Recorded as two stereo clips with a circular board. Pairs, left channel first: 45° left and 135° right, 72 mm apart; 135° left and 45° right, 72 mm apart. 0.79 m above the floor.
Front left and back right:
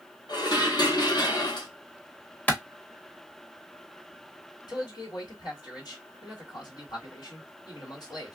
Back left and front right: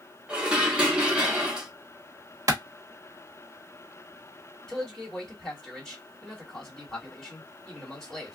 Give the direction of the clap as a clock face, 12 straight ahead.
1 o'clock.